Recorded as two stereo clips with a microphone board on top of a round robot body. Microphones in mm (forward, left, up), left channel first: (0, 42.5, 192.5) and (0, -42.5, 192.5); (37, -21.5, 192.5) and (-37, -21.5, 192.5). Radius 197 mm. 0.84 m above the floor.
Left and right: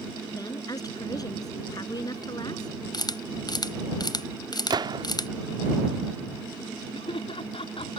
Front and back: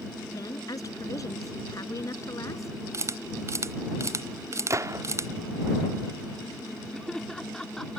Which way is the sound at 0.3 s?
45° left.